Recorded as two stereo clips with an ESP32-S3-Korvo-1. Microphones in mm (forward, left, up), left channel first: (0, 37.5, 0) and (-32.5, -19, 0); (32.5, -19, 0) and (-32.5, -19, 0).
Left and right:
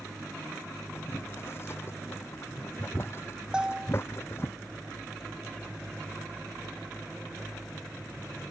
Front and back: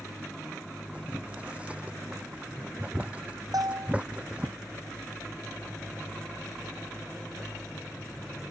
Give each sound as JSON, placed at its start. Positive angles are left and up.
{"t": 0.9, "sound": "boiling", "azimuth_deg": 110}
{"t": 3.5, "sound": "a bell", "azimuth_deg": 165}